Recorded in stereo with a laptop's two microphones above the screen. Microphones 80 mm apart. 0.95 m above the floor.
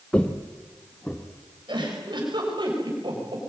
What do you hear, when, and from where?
0.1 s footsteps: 15° left (ahead or behind), 1.2 m
1.7 s a giggle: 70° right (ahead or behind), 5.5 m